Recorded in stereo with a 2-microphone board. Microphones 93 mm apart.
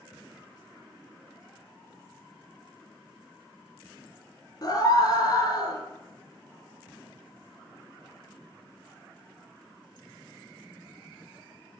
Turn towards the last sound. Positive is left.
turn(degrees=40)  # may be behind; listen again after turning